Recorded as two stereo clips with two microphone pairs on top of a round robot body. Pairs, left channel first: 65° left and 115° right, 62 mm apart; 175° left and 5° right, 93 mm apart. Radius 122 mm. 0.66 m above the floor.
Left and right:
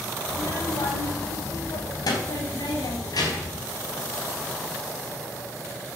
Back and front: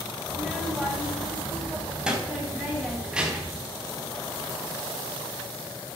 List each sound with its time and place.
0.3 s a child speaking: 75° left, 2.5 m